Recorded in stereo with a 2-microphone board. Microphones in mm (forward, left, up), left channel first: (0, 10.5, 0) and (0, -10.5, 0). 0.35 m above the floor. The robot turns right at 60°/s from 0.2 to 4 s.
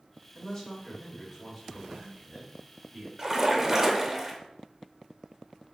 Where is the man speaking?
125° left, 1.3 m; by 3.1 s 75° right, 1.3 m.